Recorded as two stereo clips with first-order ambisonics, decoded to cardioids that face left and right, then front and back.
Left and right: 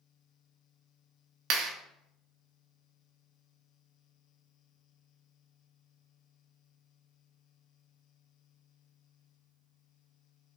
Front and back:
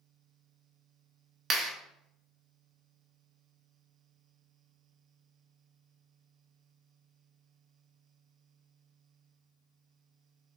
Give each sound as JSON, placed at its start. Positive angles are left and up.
{"t": 1.5, "sound": "a clap", "azimuth_deg": -120, "distance_m": 0.6}